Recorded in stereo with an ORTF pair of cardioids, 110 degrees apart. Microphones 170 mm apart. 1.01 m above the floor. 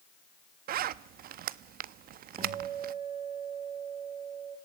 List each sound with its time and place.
0.7 s a zipper: 65° right, 0.7 m
2.4 s a guitar: 35° right, 3 m